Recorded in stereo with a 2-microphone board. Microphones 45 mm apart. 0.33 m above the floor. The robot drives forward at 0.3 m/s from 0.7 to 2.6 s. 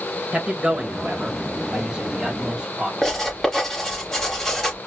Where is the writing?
5° left (ahead or behind), 3.5 m.